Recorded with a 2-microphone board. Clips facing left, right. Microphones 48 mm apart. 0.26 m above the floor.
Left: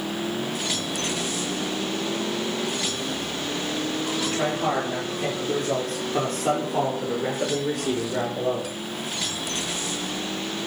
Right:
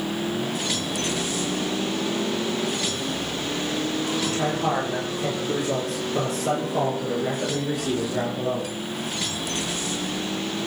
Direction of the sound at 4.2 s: 40° left (ahead or behind).